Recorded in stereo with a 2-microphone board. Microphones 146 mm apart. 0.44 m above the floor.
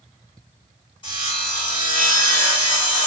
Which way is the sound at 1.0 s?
30° left (ahead or behind).